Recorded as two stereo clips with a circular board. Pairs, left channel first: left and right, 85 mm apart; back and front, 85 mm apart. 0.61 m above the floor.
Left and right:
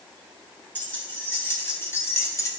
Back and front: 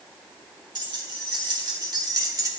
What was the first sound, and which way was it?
Keys jangling, 25° left.